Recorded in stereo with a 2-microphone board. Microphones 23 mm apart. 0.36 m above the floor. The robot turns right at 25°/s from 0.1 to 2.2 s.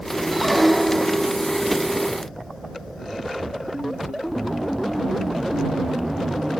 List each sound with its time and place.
0.3 s a squeak: 10° right (ahead or behind); by 1.3 s 15° left (ahead or behind)